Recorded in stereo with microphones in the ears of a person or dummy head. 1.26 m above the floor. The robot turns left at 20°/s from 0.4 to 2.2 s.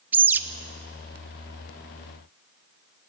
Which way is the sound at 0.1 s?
10° right (ahead or behind).